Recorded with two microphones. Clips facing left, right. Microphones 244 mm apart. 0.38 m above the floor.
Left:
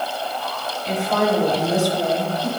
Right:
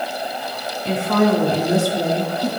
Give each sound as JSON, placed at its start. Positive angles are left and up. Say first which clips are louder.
{"t": 0.8, "sound": "a woman speaking", "louder": "right 4 dB", "side_deg": -60, "distance_m": 3.0}